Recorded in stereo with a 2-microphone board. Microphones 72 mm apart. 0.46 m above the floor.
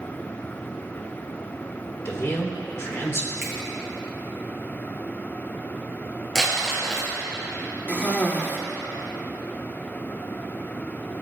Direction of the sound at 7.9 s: 25° left (ahead or behind).